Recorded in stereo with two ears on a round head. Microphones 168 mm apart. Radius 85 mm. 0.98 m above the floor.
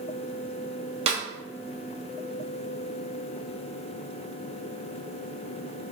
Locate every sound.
1.1 s a snare drum: 30° right (ahead or behind), 0.7 m